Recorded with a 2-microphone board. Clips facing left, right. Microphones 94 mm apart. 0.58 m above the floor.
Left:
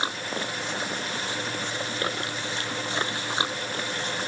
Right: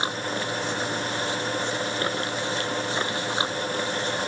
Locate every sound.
Only background noise.